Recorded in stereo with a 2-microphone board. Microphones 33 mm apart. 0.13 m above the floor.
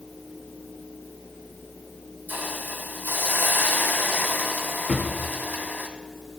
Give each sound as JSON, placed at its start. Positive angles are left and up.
{"t": 2.3, "sound": "a hiss", "side_deg": -70, "distance_m": 1.3}
{"t": 4.9, "sound": "a drawer", "side_deg": 15, "distance_m": 1.4}